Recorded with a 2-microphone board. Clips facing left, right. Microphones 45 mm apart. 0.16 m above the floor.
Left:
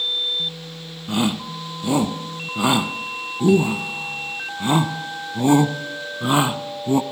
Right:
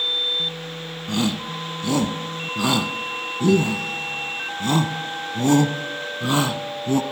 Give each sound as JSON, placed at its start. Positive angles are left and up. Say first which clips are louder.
{"t": 1.1, "sound": "a shout", "louder": "left 2 dB", "side_deg": 20, "distance_m": 1.0}